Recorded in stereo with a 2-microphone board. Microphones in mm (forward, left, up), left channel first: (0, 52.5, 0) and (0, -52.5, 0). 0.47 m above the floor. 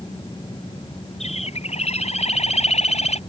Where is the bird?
85° left.